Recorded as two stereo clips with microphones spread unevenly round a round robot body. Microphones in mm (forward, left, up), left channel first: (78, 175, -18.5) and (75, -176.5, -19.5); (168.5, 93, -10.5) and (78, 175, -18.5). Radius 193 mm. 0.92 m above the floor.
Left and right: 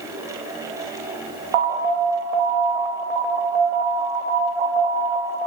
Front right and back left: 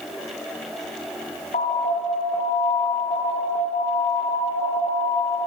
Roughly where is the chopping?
No chopping in this recording.